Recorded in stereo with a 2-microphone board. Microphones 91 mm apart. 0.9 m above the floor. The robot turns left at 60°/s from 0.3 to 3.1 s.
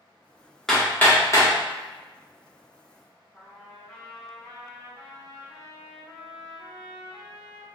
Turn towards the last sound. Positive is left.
turn(degrees=5)  # may be behind; listen again after turning